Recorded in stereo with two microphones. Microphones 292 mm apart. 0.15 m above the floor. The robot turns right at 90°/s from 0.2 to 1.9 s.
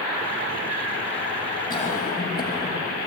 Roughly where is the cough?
Centre.